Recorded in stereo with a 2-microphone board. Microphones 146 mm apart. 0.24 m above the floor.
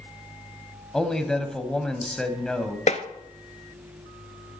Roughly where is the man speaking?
Centre.